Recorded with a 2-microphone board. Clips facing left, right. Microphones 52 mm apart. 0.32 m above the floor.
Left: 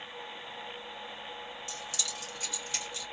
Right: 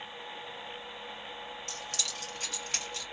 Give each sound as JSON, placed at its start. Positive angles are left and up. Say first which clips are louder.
{"t": 1.7, "sound": "keys jangling", "louder": "even", "side_deg": -55, "distance_m": 1.1}